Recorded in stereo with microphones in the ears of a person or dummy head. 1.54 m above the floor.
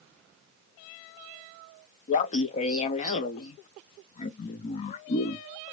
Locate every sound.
2.1 s laughter: 40° left (ahead or behind), 0.5 m